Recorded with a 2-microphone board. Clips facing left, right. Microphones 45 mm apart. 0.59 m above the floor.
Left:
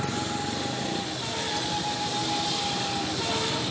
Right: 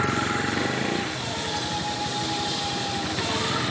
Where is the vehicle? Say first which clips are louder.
Right 5 dB; 85° right; by 3.7 s 70° right (ahead or behind).